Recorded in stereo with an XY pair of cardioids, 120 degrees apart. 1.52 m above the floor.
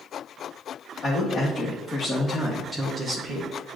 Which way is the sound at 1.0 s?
40° left.